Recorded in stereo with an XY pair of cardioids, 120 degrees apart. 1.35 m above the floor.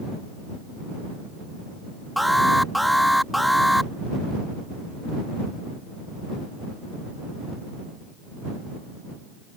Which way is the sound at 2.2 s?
Straight ahead.